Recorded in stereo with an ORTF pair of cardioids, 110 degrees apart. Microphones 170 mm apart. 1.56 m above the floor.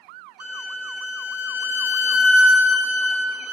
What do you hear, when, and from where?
0.4 s a violin: 15° right, 1.1 m